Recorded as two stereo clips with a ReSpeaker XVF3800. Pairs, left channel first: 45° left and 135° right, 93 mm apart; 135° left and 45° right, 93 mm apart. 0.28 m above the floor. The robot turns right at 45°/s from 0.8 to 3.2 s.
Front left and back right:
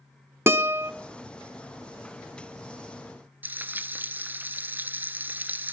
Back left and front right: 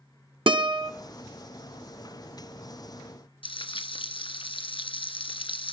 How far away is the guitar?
About 0.8 m.